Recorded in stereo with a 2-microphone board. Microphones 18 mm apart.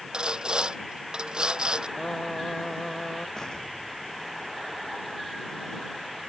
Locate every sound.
0.1 s sawing: 65° right (ahead or behind)
2.0 s singing: 30° left (ahead or behind)
3.4 s an explosion: 45° left (ahead or behind)